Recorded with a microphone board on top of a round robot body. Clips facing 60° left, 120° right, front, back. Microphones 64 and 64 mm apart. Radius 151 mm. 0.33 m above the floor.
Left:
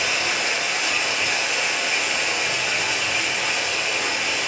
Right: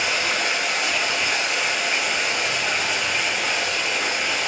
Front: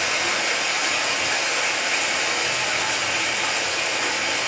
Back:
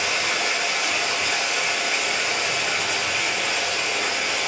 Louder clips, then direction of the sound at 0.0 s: Right 1 dB, even; 25° right.